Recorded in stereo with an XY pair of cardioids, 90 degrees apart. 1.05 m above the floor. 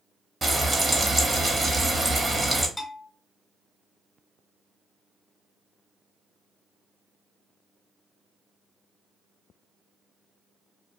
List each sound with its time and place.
0.4 s frying: 30° right, 1.1 m
2.8 s a bell: 15° left, 1.0 m